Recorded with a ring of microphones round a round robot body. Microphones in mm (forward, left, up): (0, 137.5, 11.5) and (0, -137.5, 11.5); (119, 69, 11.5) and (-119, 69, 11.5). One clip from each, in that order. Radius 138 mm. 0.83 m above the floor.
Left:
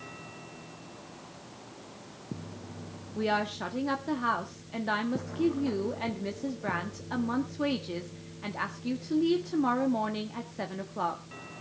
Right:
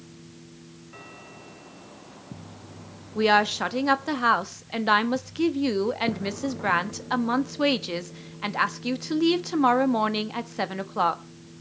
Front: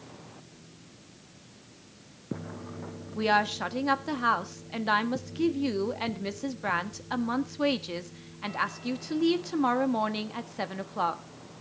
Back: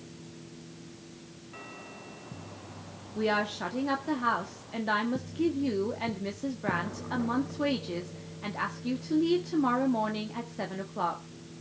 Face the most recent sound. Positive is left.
turn(degrees=-60)